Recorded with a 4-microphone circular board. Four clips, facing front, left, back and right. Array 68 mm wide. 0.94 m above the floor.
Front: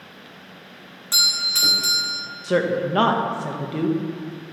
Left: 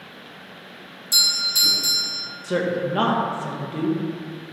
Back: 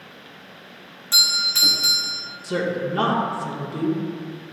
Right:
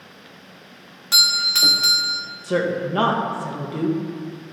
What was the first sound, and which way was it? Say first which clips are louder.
A doorbell: right 4 dB, back 1 dB; 85° right.